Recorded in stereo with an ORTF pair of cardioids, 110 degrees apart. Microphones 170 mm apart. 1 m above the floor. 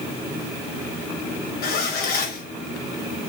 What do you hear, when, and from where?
1.6 s a zipper: 65° left, 4.5 m